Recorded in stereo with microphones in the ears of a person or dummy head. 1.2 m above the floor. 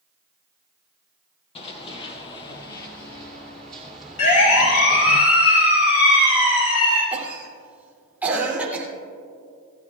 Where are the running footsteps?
35° left (ahead or behind), 1.7 m; by 5.2 s 20° right (ahead or behind), 1.3 m.